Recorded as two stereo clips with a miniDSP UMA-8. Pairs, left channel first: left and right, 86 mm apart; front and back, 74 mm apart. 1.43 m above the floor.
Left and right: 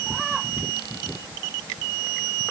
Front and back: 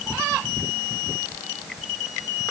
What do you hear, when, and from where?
Only background noise.